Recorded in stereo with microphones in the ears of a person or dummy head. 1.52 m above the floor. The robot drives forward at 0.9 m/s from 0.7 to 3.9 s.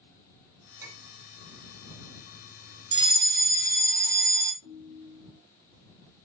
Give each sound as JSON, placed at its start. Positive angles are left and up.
{"t": 0.8, "sound": "a clink", "side_deg": -15, "distance_m": 7.0}
{"t": 2.9, "sound": "a fire alarm", "side_deg": -25, "distance_m": 1.1}
{"t": 4.6, "sound": "a ringtone", "side_deg": -70, "distance_m": 3.5}